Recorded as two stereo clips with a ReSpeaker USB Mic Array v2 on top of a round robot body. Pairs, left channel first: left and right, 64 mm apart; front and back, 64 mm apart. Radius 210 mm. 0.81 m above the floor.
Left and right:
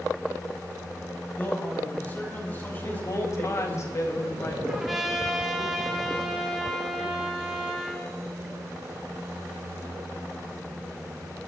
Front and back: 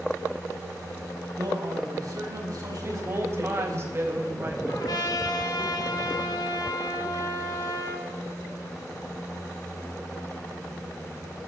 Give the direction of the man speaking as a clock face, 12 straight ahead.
7 o'clock.